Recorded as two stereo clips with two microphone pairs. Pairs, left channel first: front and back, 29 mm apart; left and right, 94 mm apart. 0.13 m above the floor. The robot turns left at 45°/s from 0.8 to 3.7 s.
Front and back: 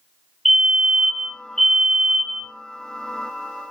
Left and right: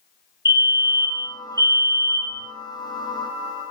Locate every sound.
0.5 s a fire alarm: 85° left, 3 m; by 2.5 s 10° left, 3 m